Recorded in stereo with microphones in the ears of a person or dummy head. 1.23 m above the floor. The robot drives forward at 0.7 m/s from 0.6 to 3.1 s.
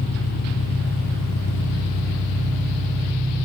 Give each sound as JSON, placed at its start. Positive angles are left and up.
{"t": 0.0, "sound": "an engine running", "side_deg": 65, "distance_m": 1.5}